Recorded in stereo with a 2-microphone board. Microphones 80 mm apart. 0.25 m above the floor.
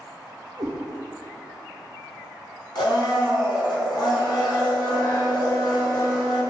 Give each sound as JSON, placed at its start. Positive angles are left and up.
{"t": 0.6, "sound": "a cat meowing", "side_deg": -55, "distance_m": 0.7}
{"t": 2.8, "sound": "a blender", "side_deg": 65, "distance_m": 1.1}